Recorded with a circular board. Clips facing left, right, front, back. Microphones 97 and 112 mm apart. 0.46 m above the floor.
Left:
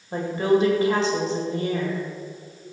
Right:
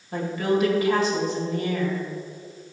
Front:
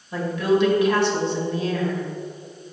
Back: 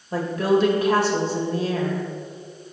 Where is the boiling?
I don't hear boiling.